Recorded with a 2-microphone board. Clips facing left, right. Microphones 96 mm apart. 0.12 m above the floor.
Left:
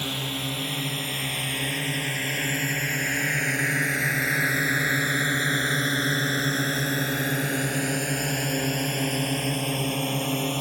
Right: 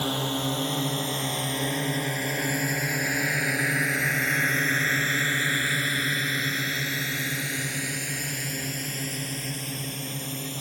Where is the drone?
30° right (ahead or behind); by 10.6 s 65° left (ahead or behind).